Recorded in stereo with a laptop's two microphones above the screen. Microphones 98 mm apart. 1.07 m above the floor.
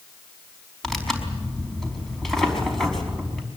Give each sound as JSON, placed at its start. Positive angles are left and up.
{"t": 0.8, "sound": "tearing paper", "side_deg": 5, "distance_m": 5.0}